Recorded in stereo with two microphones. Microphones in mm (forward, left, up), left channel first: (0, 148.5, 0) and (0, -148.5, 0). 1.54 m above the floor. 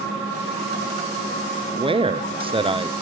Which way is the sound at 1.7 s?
20° right (ahead or behind).